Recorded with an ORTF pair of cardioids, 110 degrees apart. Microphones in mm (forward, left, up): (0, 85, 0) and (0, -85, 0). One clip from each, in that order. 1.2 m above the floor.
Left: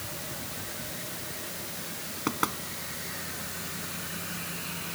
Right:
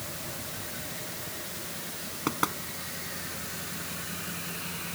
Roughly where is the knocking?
Ahead.